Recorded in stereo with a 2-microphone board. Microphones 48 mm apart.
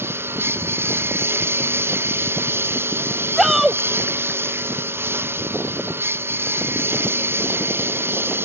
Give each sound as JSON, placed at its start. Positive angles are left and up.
{"t": 0.0, "sound": "a lawn mower", "side_deg": -55}
{"t": 3.4, "sound": "a shout", "side_deg": -5}